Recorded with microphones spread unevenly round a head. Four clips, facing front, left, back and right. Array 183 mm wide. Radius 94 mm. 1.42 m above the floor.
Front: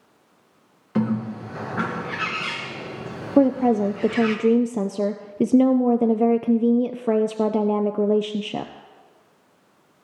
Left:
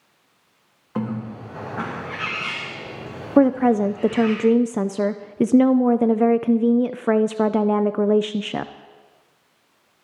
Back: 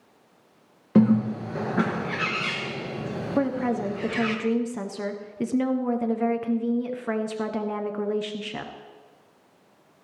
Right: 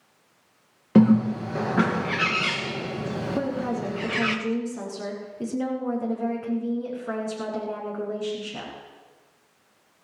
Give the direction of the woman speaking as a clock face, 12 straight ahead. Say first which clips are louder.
Left 15 dB, front 8 dB; 10 o'clock.